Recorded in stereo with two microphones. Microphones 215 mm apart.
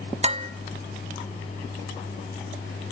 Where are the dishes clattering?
30° right (ahead or behind), 0.8 m.